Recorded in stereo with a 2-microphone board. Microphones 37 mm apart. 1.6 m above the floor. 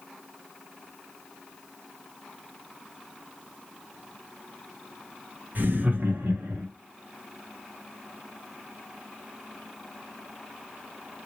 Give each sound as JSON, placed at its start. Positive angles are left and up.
{"t": 5.5, "sound": "laughter", "side_deg": -45, "distance_m": 1.1}